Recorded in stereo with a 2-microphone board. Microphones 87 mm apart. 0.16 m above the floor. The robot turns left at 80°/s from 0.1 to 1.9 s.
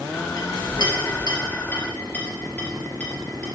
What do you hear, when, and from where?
0.4 s a clink: 40° left (ahead or behind), 2.5 m; by 3.5 s 15° left (ahead or behind), 2.5 m